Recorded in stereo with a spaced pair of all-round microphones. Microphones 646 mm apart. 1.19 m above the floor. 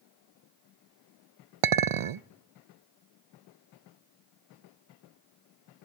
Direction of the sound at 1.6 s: 55° right (ahead or behind).